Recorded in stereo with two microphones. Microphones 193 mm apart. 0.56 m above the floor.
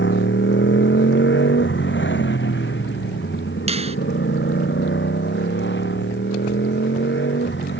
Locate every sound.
0.0 s a motorcycle: 75° left (ahead or behind); by 7.8 s 70° left (ahead or behind)
3.7 s a finger snap: 30° right (ahead or behind)